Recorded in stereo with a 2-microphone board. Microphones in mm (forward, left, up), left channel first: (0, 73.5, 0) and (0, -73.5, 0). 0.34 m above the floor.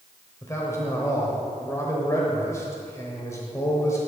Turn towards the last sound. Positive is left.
turn(degrees=20)  # may be behind; listen again after turning